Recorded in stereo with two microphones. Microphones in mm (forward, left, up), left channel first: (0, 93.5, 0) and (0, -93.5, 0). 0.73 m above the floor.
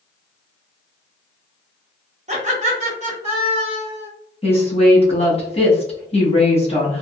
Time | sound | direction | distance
2.3 | laughter | 35° right (ahead or behind) | 1.1 m
4.4 | a woman speaking | 30° left (ahead or behind) | 1.2 m